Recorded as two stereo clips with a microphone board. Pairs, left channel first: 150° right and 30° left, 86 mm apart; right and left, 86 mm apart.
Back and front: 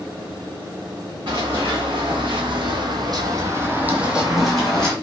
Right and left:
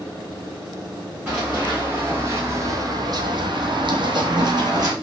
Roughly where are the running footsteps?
Ahead.